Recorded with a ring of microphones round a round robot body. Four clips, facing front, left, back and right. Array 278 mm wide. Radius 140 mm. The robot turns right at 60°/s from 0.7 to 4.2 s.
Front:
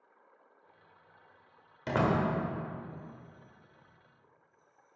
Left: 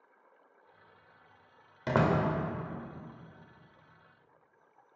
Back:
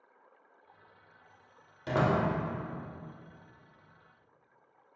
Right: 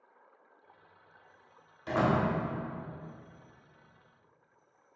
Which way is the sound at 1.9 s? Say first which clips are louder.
Left 1 dB, back 1 dB; 70° left.